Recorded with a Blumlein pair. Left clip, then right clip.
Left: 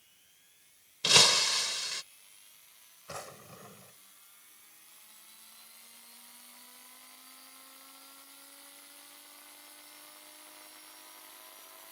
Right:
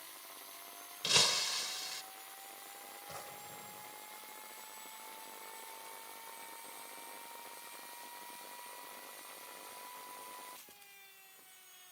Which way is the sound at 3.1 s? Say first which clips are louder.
Left 6 dB; 65° left.